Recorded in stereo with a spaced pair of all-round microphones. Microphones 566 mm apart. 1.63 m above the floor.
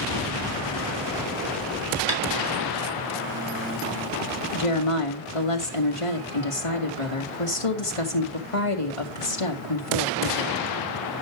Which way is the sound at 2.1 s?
60° right (ahead or behind).